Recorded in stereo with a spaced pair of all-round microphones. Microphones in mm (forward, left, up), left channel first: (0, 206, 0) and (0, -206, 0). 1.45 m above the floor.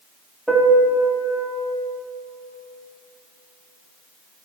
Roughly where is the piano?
Centre.